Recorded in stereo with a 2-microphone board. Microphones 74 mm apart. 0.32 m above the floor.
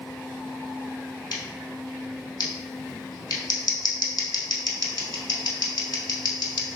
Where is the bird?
I don't hear a bird.